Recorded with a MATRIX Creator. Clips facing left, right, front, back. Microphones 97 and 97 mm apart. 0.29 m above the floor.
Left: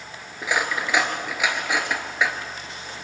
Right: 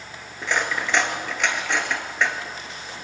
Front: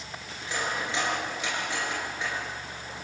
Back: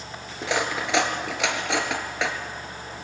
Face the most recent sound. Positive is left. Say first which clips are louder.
# even, back 6 dB
turn(degrees=175)